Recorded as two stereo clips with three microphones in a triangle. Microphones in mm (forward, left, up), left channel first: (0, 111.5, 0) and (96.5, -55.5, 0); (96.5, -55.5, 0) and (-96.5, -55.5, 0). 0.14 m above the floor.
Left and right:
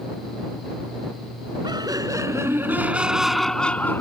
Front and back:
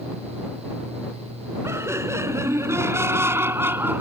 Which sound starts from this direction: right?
Laughter, at 1.6 s.